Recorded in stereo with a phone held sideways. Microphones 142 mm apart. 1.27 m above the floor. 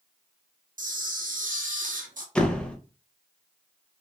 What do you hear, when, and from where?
0.8 s a camera shutter: 65° right (ahead or behind), 0.7 m
2.4 s a door slam: 5° left (ahead or behind), 0.6 m